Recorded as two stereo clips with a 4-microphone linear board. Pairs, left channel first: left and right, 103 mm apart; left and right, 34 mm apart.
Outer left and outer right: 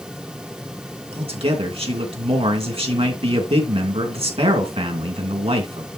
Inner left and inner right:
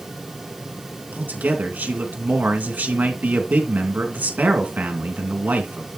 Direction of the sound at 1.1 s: 65° right (ahead or behind).